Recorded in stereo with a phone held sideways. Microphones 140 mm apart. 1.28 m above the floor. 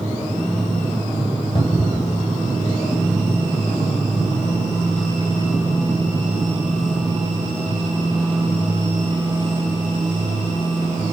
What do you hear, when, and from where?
1.6 s a cupboard door: 35° left (ahead or behind), 2.5 m